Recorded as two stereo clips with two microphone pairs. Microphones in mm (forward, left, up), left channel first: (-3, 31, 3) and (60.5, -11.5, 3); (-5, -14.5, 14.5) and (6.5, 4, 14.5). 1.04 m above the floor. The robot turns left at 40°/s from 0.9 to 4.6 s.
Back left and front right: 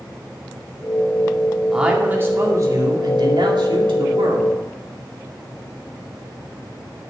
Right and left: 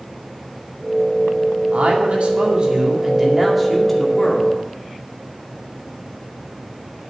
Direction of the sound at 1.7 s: 45° left.